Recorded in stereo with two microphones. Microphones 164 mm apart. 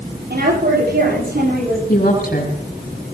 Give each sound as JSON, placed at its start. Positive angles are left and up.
{"t": 0.3, "sound": "a woman speaking", "side_deg": -70, "distance_m": 9.0}
{"t": 1.9, "sound": "a woman speaking", "side_deg": 65, "distance_m": 6.0}